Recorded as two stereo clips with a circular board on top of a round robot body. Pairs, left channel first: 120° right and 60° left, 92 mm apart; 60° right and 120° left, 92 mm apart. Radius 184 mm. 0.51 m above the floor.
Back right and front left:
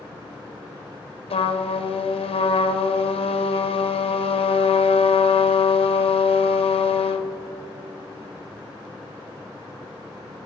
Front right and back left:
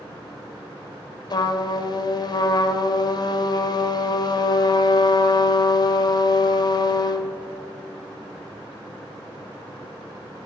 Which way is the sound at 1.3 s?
105° right.